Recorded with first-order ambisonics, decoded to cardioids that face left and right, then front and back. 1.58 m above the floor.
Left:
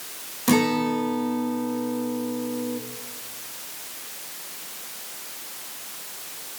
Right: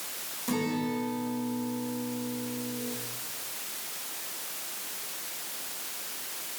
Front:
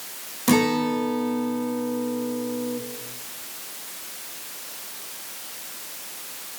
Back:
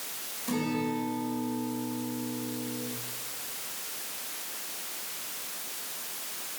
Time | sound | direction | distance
0.5 | a guitar | 40° left | 2.5 m